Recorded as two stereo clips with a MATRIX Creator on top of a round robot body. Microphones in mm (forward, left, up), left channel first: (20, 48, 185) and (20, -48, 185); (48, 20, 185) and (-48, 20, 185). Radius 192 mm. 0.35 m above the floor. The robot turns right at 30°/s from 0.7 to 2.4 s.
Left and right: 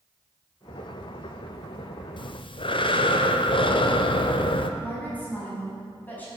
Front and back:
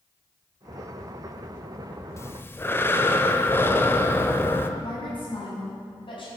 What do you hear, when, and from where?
2.2 s breathing: 60° left, 0.9 m; by 4.7 s 65° left, 0.9 m
4.8 s a woman speaking: 20° left, 4.5 m